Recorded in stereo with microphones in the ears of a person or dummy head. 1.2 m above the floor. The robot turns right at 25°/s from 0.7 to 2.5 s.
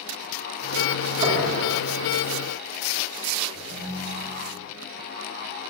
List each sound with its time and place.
1.2 s knocking: 30° right (ahead or behind), 4 m; by 1.5 s 35° right (ahead or behind), 4 m
3.5 s a ringtone: 10° right (ahead or behind), 4.5 m